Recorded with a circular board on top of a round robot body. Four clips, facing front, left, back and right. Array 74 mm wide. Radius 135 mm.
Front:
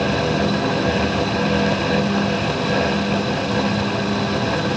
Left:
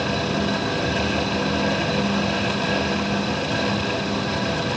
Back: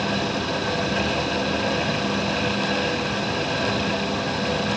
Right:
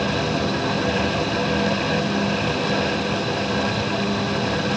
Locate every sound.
Only background noise.